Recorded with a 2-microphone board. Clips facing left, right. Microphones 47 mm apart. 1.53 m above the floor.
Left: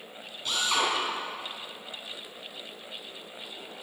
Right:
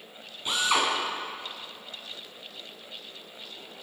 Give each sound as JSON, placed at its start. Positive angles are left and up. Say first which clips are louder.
{"t": 0.5, "sound": "a drill", "louder": "right 2 dB", "side_deg": -25, "distance_m": 10.0}